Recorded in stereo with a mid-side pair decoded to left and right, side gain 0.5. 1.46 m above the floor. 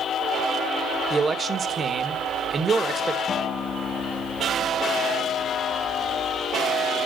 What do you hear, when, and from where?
1.1 s a man speaking: 35° right, 2 m
3.3 s a guitar: 40° left, 3 m